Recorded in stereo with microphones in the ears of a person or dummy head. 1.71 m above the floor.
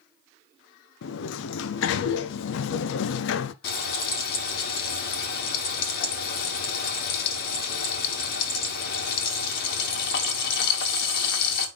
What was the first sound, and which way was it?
A sliding door, 80° left.